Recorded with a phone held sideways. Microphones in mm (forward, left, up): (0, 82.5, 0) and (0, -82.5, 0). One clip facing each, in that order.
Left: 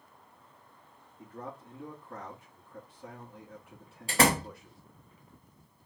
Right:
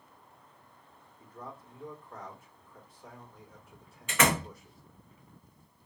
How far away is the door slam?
About 0.8 m.